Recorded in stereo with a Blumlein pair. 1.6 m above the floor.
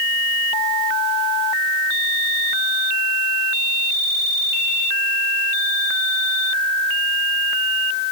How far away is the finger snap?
No finger snap in this recording.